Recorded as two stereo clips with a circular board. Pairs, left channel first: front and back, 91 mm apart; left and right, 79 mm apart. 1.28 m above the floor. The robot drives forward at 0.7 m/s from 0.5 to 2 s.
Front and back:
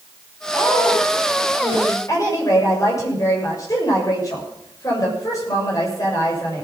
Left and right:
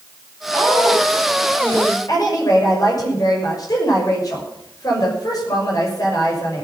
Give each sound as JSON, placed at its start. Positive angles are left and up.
{"t": 0.5, "sound": "a woman speaking", "azimuth_deg": 35, "distance_m": 6.0}
{"t": 2.1, "sound": "a woman speaking", "azimuth_deg": 50, "distance_m": 6.0}